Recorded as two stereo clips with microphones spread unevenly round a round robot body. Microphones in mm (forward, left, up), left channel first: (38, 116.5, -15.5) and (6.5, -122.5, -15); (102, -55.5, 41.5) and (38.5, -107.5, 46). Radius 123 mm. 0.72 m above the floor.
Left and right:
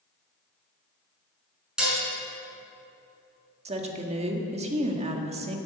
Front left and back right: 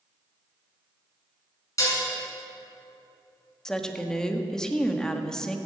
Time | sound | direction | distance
1.8 | dishes clattering | 10° right | 6.5 m
3.6 | a woman speaking | 40° right | 1.7 m